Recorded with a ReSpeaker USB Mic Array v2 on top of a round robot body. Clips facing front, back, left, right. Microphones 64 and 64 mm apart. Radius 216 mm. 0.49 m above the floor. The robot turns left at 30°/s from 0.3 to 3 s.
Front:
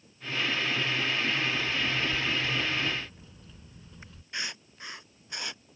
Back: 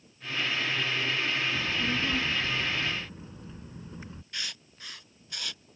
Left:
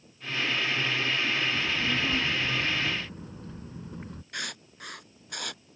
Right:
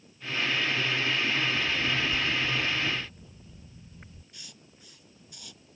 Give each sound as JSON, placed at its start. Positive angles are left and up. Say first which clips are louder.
{"t": 1.6, "sound": "a child speaking", "louder": "even, even", "azimuth_deg": 160}
{"t": 4.3, "sound": "writing", "louder": "front 4 dB, left 15 dB", "azimuth_deg": 65}